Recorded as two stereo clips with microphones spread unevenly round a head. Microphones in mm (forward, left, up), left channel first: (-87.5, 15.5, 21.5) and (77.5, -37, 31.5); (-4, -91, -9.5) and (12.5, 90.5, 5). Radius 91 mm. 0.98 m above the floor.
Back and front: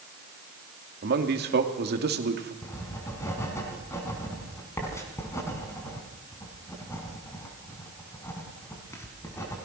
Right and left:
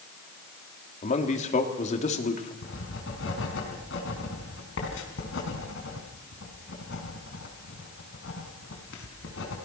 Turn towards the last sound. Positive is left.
turn(degrees=-120)